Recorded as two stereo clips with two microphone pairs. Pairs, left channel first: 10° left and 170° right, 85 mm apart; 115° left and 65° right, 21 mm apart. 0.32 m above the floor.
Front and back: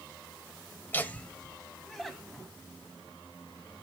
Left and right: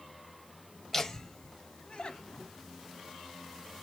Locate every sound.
0.9 s laughter: 60° left, 1.2 m; by 2.5 s 100° left, 2 m